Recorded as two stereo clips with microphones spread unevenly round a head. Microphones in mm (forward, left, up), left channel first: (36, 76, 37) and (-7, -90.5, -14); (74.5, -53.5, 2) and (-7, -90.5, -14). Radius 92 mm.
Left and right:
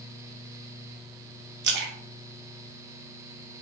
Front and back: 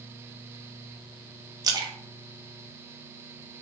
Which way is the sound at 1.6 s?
110° right.